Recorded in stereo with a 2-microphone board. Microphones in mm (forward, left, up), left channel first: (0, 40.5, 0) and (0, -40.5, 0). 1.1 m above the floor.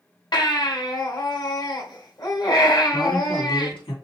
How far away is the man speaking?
About 2.5 m.